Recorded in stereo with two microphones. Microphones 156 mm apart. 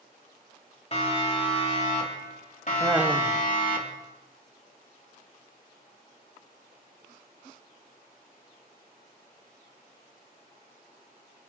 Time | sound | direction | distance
0.9 | a siren | 40° left (ahead or behind) | 4 m
2.8 | laughter | 10° right (ahead or behind) | 1.6 m